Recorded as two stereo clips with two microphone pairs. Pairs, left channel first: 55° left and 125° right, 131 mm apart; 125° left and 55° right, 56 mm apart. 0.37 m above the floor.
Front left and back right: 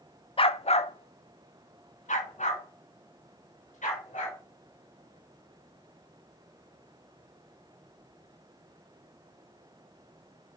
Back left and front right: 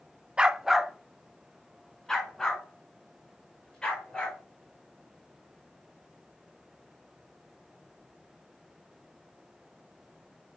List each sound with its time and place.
0.4 s a dog barking: 15° left, 0.5 m; by 4.4 s 50° left, 3 m